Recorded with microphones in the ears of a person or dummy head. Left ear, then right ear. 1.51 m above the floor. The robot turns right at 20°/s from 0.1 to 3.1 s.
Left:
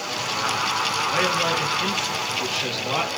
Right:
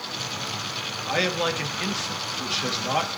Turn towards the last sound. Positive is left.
turn(degrees=-10)